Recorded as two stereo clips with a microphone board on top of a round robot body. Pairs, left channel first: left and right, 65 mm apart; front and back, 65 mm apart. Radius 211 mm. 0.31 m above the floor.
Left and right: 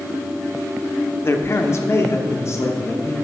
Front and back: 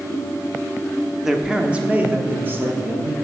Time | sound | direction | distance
1.2 | a man speaking | 95° left | 1.0 m